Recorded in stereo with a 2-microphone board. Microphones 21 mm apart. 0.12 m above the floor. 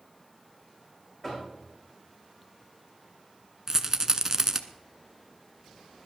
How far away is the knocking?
About 7.5 m.